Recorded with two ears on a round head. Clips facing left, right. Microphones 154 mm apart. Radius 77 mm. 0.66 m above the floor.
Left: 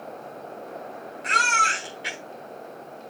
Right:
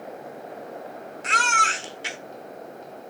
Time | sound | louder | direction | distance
1.2 | a baby crying | right 1 dB | 55° right (ahead or behind) | 4 m